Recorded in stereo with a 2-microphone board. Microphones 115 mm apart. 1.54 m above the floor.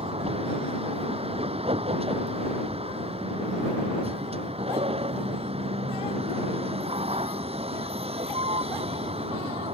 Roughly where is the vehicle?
Right.